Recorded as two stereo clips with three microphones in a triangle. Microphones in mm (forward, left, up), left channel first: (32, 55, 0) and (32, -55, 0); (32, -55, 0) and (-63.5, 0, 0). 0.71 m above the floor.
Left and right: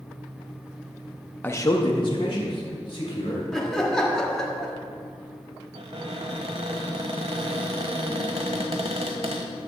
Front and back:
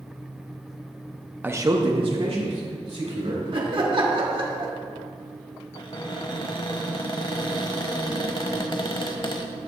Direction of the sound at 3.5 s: 175° left.